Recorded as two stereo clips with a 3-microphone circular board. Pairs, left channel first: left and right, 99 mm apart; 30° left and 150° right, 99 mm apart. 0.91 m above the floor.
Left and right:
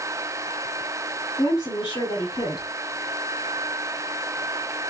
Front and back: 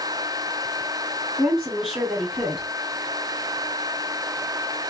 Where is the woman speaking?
120° left, 1.9 m.